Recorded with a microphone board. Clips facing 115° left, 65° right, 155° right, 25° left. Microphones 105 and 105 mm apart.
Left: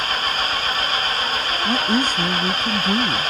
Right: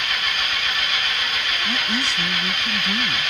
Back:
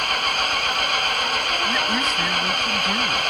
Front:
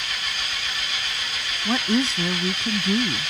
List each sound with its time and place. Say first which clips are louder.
0.0 s an engine running: left 4 dB, back 9 dB; 165° left
1.6 s a woman speaking: left 8 dB, front 6 dB; 75° left